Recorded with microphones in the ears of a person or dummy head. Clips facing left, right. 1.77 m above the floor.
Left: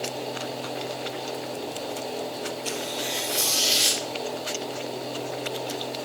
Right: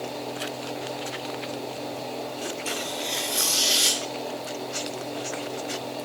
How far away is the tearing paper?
About 6 m.